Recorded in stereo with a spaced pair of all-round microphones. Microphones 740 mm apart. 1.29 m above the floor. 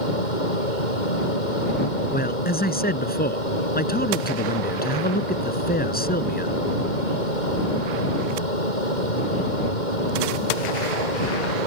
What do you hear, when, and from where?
0.0 s a fan: 75° left (ahead or behind)
2.1 s a man speaking: 10° left (ahead or behind)